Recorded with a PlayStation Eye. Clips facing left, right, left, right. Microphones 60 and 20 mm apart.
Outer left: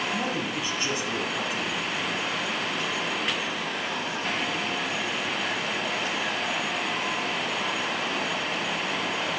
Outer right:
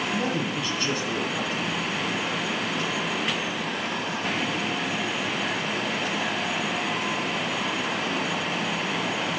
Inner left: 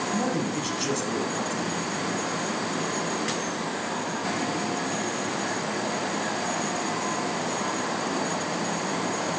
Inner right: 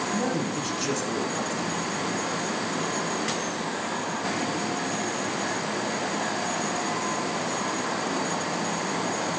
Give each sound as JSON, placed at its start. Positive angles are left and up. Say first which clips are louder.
{"t": 0.1, "sound": "a man speaking", "louder": "outer right 2 dB, even", "side_deg": 15, "distance_m": 1.8}